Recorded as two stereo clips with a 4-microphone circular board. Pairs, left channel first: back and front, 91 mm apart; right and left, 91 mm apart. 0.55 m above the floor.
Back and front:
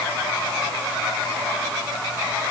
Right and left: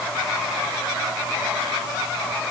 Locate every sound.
Only background noise.